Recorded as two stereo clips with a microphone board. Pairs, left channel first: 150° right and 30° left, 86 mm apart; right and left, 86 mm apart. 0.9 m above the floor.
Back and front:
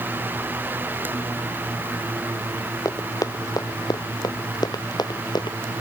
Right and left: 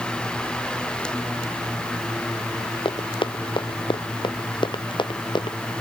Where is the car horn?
I don't hear a car horn.